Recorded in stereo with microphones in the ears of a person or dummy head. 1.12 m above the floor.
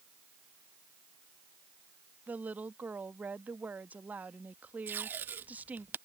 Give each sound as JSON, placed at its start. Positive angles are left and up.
{"t": 2.3, "sound": "a woman speaking", "side_deg": -10}
{"t": 4.9, "sound": "tape being pulled", "side_deg": -5}